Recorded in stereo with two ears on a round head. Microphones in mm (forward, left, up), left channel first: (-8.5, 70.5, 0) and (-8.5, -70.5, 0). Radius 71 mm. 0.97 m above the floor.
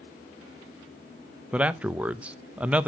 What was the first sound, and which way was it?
A man speaking, 10° right (ahead or behind).